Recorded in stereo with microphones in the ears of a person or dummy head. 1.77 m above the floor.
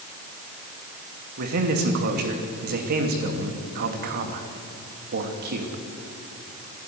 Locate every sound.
1.4 s a man speaking: 50° right (ahead or behind), 2.5 m